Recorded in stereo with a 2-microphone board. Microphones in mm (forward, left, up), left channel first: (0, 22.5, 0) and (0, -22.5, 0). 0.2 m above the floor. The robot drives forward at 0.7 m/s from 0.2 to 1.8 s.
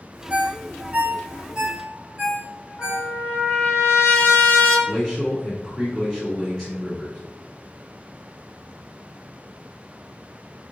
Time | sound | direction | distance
0.3 | a ringtone | 35° right (ahead or behind) | 0.6 m
2.8 | a trumpet | 55° left (ahead or behind) | 1.9 m
4.9 | a man speaking | centre (ahead or behind) | 1.9 m